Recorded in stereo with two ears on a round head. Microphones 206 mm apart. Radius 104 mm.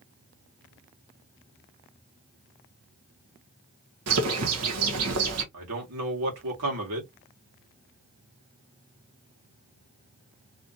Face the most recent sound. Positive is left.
turn(degrees=-75)  # may be behind; listen again after turning